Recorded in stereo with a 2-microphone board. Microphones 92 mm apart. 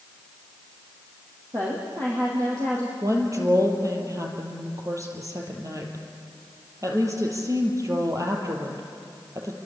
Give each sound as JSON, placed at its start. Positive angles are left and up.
{"t": 1.5, "sound": "a woman speaking", "side_deg": -35, "distance_m": 4.5}
{"t": 3.0, "sound": "a woman speaking", "side_deg": -35, "distance_m": 4.0}